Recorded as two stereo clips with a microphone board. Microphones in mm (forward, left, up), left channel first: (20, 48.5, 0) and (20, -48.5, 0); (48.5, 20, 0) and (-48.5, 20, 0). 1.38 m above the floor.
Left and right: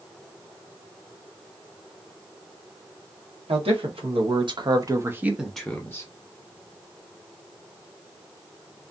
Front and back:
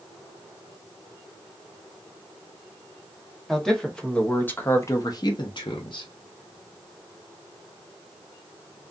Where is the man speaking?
90° right, 1.2 m; by 6.1 s 30° left, 0.8 m.